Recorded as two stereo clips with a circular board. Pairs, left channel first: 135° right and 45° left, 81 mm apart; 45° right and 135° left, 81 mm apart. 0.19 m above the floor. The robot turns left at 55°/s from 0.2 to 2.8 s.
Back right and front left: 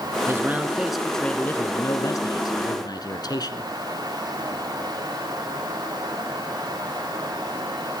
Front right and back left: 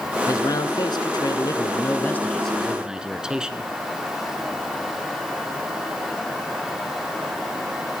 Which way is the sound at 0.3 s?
5° right.